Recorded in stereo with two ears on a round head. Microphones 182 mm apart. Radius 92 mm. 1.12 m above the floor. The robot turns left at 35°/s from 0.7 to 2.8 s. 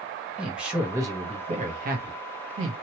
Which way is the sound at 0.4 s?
5° right.